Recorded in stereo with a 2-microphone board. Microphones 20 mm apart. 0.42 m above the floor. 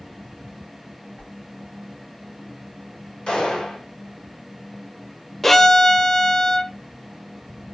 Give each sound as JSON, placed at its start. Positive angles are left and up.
{"t": 1.2, "sound": "a whoosh", "side_deg": 70, "distance_m": 8.5}
{"t": 3.3, "sound": "a gunshot", "side_deg": 65, "distance_m": 6.5}
{"t": 5.4, "sound": "a violin", "side_deg": 15, "distance_m": 0.6}